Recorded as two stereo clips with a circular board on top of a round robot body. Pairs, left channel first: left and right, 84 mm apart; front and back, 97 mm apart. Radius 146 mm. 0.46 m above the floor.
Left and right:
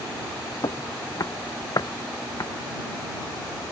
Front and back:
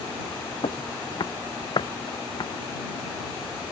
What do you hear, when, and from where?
0.6 s footsteps: 40° left; by 2.5 s 45° left